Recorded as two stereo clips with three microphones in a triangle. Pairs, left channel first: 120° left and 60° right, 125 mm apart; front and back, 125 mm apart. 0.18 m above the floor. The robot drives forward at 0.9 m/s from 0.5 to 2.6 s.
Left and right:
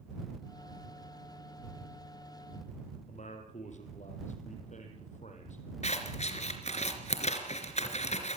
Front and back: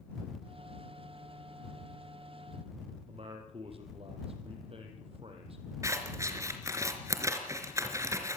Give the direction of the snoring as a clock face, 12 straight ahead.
I don't hear snoring.